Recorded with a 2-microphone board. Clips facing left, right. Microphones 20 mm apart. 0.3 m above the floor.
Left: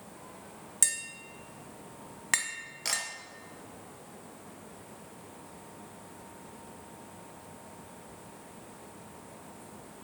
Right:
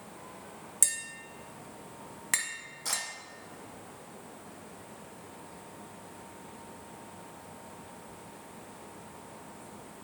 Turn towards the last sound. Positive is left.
turn(degrees=45)  # may be behind; listen again after turning